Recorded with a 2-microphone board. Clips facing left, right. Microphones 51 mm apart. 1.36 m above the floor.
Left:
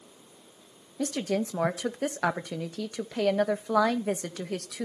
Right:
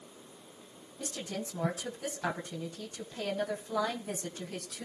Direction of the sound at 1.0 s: 70° left (ahead or behind).